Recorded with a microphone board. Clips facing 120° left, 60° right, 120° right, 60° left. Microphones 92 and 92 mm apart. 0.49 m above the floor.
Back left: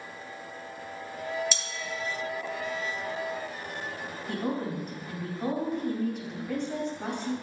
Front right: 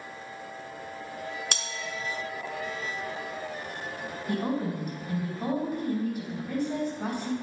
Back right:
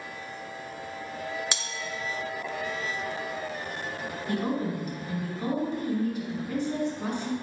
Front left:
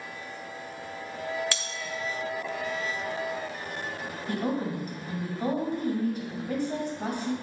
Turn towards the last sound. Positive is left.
turn(degrees=25)